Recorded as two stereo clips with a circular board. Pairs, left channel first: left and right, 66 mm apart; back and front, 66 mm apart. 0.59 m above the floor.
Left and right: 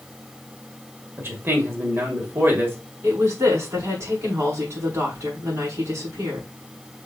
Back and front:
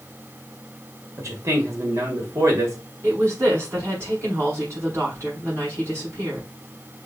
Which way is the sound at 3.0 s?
45° right.